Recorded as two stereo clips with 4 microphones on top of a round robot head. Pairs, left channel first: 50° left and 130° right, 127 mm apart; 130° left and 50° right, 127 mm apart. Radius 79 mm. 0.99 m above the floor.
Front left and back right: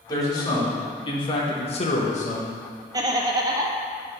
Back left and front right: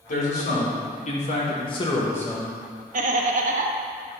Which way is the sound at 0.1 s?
115° left.